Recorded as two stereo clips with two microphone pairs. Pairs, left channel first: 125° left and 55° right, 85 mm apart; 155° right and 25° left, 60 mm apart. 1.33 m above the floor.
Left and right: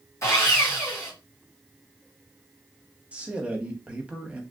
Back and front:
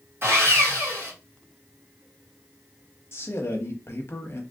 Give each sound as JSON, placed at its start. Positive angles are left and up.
{"t": 0.2, "sound": "sawing", "azimuth_deg": 70, "distance_m": 1.5}
{"t": 3.1, "sound": "a man speaking", "azimuth_deg": -130, "distance_m": 0.8}